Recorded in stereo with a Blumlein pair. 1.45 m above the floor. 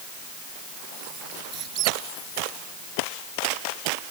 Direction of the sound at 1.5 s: 35° right.